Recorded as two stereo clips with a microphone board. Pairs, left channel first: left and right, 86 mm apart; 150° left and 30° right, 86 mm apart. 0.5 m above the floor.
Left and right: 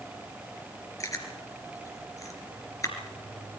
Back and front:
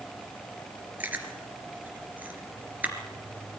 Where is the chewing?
40° left, 3 m.